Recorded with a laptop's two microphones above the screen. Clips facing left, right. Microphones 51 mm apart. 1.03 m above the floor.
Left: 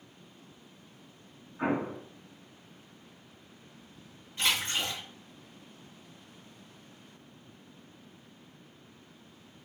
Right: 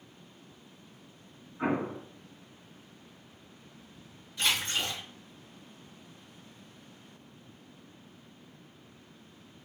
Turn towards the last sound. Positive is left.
turn(degrees=40)  # may be behind; listen again after turning